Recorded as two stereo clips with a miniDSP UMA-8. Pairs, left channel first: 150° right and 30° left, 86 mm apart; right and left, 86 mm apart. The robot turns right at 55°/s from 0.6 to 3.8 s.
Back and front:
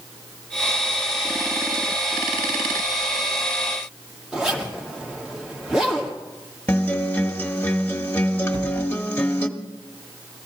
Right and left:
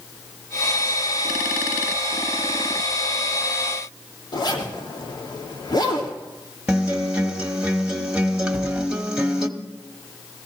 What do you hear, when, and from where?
4.3 s a zipper: 55° right, 2.5 m
6.7 s a guitar: 160° left, 1.1 m
8.5 s a cupboard door: 10° left, 5.5 m